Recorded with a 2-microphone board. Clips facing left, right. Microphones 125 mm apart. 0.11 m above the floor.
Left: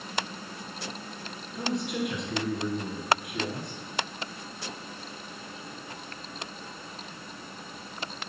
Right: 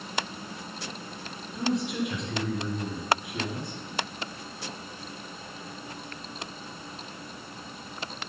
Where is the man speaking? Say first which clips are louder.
Right 2 dB; centre (ahead or behind), 1.9 m.